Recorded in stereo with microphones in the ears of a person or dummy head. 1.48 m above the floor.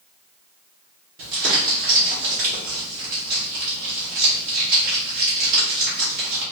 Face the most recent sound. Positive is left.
turn(degrees=-55)  # may be behind; listen again after turning